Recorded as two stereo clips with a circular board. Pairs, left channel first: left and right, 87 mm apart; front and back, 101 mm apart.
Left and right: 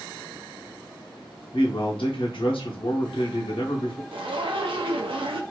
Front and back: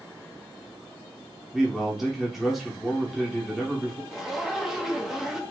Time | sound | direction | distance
1.5 | a man speaking | 90° left | 1.0 m
4.1 | a zipper | 95° right | 0.6 m